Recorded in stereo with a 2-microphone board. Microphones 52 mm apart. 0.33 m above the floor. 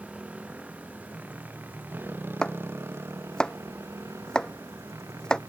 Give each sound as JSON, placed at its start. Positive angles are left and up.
{"t": 0.0, "sound": "a motorcycle", "side_deg": -25}
{"t": 2.4, "sound": "chopping", "side_deg": 15}